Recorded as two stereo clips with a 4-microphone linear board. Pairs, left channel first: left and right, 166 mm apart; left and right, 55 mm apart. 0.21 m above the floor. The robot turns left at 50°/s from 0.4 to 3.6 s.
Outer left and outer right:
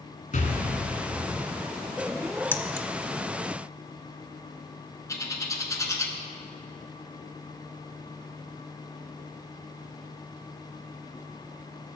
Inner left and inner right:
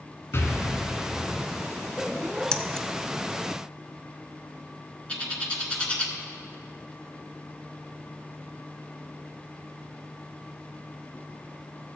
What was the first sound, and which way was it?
An explosion, 125° left.